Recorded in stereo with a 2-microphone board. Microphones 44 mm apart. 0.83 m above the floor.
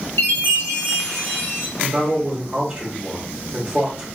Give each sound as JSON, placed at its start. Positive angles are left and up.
{"t": 0.2, "sound": "a chime", "side_deg": 70, "distance_m": 1.0}
{"t": 1.8, "sound": "a man speaking", "side_deg": -20, "distance_m": 1.2}